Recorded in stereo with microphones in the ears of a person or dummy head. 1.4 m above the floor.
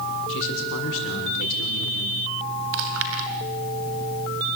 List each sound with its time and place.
0.3 s a man speaking: 75° left (ahead or behind), 6 m
2.7 s chewing: 70° right (ahead or behind), 3 m